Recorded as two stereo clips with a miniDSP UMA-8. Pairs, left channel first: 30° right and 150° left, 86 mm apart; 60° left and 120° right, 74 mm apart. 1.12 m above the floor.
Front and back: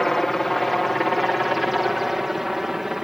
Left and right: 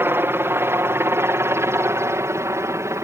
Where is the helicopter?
115° right; by 3.0 s 125° right.